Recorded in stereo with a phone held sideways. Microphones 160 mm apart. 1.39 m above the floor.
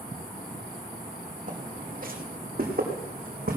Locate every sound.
1.5 s footsteps: 55° right (ahead or behind), 3 m; by 3.6 s 70° right (ahead or behind), 3.5 m